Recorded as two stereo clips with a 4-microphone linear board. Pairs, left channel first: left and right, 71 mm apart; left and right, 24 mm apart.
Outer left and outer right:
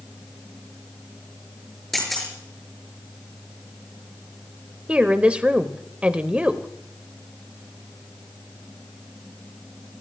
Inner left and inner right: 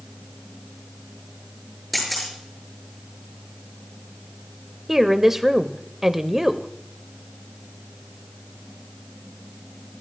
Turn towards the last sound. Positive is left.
turn(degrees=-15)  # may be behind; listen again after turning